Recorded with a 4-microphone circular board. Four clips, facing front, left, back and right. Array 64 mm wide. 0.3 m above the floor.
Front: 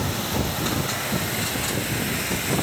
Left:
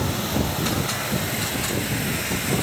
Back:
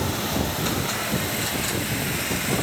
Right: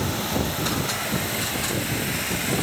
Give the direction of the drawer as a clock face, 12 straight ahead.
I don't hear a drawer.